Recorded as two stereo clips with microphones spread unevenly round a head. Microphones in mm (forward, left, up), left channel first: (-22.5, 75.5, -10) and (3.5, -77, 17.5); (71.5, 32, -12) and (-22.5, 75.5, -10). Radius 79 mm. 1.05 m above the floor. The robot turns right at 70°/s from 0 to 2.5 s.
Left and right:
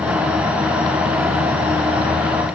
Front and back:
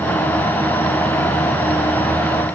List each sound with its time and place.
Only background noise.